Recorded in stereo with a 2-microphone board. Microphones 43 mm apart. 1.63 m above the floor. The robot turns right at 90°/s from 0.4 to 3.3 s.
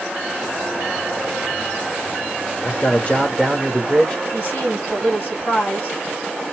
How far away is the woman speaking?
About 3 m.